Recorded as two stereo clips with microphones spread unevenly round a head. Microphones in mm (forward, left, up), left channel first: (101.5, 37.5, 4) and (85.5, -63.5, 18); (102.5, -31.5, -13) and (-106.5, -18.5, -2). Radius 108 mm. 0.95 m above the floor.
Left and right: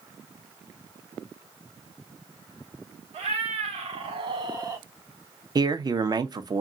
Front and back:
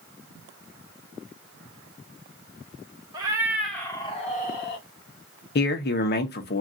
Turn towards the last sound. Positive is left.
turn(degrees=-45)